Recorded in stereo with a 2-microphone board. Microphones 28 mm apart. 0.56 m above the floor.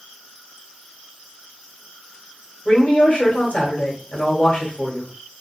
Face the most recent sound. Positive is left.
turn(degrees=55)  # may be behind; listen again after turning